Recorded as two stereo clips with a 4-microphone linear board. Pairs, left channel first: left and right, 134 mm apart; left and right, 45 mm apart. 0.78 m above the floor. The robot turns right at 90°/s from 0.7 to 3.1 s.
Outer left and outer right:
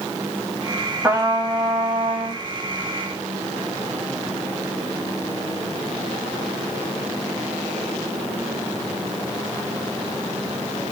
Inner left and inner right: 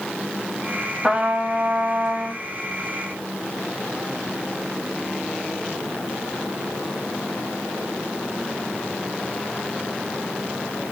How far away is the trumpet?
About 4 m.